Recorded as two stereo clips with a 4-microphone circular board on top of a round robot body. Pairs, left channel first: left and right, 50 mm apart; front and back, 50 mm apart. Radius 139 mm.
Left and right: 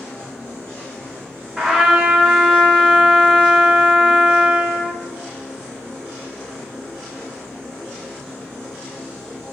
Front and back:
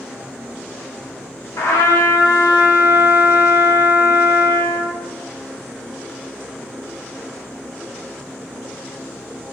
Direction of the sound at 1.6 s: 5° right.